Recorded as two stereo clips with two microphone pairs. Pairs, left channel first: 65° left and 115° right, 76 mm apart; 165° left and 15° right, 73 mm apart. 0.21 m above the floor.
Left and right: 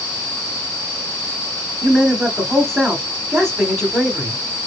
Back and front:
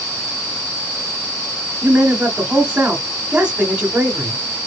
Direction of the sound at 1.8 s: 20° right.